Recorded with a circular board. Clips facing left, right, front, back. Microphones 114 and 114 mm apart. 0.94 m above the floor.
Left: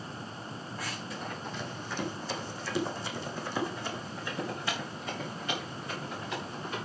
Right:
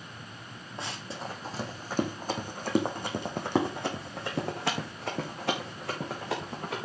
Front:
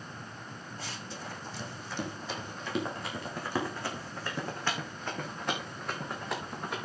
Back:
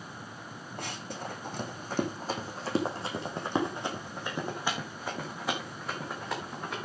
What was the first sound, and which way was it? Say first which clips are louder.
Running footsteps: right 3 dB, back 5 dB; 155° right.